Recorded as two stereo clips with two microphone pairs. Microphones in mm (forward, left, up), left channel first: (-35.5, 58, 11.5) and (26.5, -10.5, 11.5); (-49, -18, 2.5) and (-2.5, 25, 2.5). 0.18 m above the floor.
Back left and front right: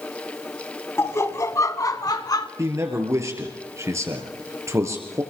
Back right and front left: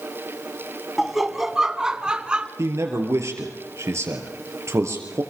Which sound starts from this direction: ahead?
A man speaking, at 2.6 s.